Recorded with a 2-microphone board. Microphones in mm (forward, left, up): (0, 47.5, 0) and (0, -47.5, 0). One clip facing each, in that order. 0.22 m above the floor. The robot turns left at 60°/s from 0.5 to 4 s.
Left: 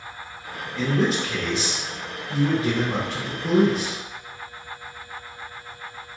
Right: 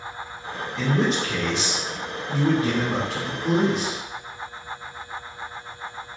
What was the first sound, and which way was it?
A man speaking, 25° right.